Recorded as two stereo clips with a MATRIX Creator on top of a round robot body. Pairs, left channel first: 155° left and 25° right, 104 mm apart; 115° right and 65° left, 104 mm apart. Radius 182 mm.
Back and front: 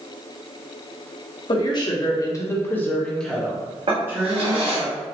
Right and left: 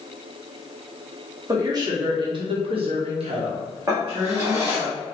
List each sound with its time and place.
1.5 s a woman speaking: 120° left, 1.5 m; by 4.9 s 35° left, 1.6 m
3.9 s a drawer: 5° left, 1.5 m